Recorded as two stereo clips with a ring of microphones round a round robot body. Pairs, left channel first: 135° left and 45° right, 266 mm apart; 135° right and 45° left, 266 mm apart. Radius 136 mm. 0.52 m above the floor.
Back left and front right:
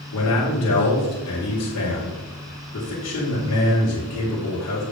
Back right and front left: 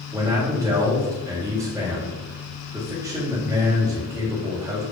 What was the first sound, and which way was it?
A man speaking, 125° left.